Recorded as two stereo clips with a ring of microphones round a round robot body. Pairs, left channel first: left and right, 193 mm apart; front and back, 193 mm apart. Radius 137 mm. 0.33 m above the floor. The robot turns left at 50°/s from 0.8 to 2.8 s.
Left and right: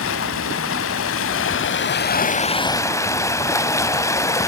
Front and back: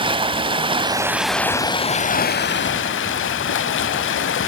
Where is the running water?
115° left, 0.8 m; by 4.5 s 15° left, 0.8 m.